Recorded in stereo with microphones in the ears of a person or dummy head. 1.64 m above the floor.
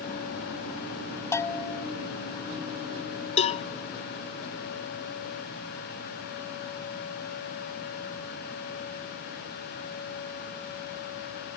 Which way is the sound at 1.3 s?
15° left (ahead or behind).